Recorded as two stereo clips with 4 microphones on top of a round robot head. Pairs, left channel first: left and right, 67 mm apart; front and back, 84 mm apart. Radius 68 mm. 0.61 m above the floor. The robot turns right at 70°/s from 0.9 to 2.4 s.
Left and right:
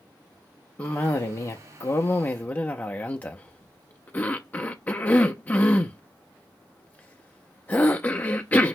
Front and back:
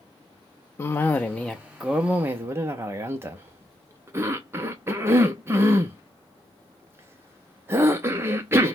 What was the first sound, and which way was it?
A cough, 30° left.